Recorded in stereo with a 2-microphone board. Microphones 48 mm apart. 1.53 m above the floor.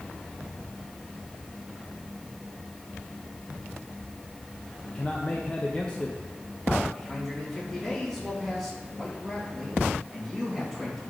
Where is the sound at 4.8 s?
20° left (ahead or behind), 0.9 m.